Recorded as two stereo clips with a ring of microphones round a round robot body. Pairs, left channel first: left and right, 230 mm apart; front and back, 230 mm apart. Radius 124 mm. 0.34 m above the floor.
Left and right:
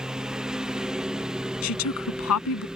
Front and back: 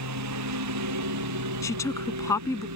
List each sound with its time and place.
0.0 s a lawn mower: 175° right
1.6 s a woman speaking: 80° left